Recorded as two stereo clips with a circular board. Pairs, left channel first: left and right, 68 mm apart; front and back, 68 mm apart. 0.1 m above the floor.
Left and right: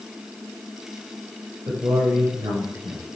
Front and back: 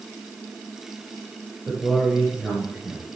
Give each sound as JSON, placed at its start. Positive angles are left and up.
{"t": 1.7, "sound": "a man speaking", "azimuth_deg": -85, "distance_m": 4.5}